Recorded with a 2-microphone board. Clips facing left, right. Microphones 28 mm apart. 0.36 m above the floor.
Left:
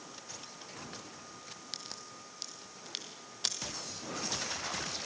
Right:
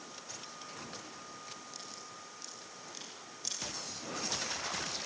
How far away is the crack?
About 2.5 m.